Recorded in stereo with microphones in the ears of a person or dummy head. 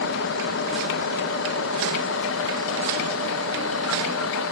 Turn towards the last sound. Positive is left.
turn(degrees=85)